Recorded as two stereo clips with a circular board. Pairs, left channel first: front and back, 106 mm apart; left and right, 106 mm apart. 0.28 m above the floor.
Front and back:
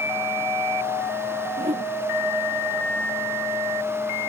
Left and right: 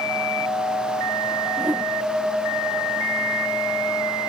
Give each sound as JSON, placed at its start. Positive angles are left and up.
{"t": 1.6, "sound": "a whoosh", "azimuth_deg": -165}